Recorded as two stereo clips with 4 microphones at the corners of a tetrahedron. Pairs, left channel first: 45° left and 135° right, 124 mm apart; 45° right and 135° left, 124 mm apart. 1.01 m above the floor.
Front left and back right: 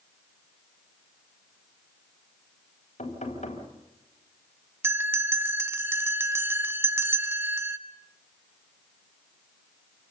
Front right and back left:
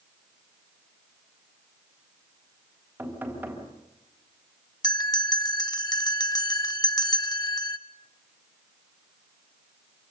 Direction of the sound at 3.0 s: 60° left.